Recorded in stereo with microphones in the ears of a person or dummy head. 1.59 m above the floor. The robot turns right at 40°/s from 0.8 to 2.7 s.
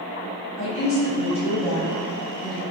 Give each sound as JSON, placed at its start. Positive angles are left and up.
{"t": 0.6, "sound": "a woman speaking", "azimuth_deg": 80, "distance_m": 0.8}